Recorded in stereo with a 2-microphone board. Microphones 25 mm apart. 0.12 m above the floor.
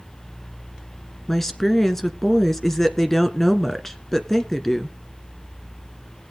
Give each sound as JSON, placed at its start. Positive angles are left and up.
{"t": 1.3, "sound": "a woman speaking", "side_deg": 15, "distance_m": 1.2}